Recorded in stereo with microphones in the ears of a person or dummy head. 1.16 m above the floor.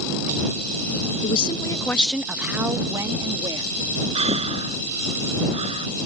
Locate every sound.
1.2 s a woman speaking: 40° left (ahead or behind); by 3.7 s 25° right (ahead or behind)
4.2 s breathing: 35° right (ahead or behind)